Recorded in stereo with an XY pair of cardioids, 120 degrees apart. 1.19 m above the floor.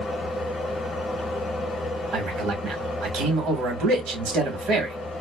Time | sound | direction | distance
0.0 | a fan | 35° left | 0.8 m
2.1 | a man speaking | 70° right | 1.1 m